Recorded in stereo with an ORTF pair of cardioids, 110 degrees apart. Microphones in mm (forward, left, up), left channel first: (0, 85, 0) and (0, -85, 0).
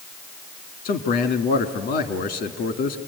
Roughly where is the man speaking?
Left.